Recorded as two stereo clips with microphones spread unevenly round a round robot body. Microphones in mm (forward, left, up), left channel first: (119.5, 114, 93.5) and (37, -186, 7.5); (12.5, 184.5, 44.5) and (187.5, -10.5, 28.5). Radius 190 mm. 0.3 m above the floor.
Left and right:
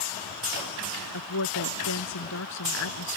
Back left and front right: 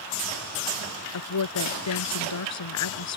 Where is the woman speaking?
125° left.